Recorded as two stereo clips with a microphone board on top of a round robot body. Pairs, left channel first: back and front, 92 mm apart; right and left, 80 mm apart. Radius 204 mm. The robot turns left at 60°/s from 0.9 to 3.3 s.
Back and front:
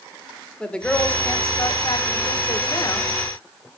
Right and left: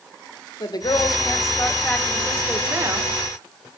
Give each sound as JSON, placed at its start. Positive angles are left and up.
{"t": 0.6, "sound": "a woman speaking", "azimuth_deg": -100, "distance_m": 2.0}